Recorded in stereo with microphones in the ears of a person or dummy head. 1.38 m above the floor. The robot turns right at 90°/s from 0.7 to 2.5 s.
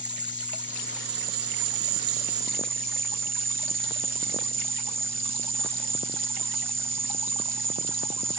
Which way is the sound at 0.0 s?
170° right.